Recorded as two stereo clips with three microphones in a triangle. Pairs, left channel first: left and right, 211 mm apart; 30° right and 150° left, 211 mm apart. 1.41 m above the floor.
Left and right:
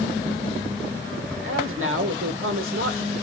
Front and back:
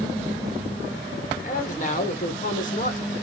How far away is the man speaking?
About 1.5 m.